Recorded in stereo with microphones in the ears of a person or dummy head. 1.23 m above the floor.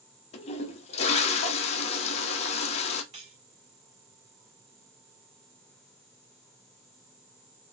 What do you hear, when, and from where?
0.3 s a toilet flushing: 35° left (ahead or behind), 0.9 m
3.1 s cutlery clinking: 35° right (ahead or behind), 1.3 m